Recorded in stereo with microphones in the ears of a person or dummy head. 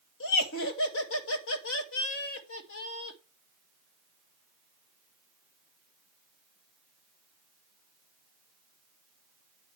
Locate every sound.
0.2 s laughter: 70° left (ahead or behind), 2 m